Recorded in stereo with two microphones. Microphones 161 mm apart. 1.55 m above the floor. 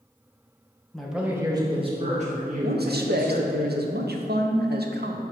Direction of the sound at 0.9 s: 5° left (ahead or behind).